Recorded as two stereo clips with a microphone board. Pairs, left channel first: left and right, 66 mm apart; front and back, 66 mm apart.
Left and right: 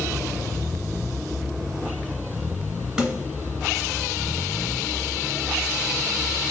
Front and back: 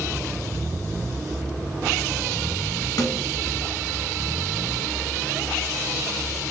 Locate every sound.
3.0 s a snare drum: 10° right, 2.5 m